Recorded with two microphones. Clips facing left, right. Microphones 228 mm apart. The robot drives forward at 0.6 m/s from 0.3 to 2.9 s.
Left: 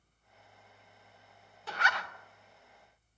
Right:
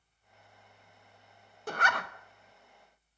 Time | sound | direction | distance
1.7 | a zipper | 50° right (ahead or behind) | 0.7 m